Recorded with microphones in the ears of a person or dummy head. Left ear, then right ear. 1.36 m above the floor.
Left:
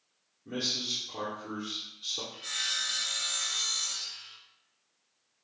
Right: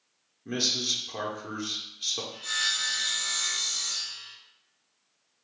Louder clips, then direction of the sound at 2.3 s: Right 4 dB; 25° left (ahead or behind).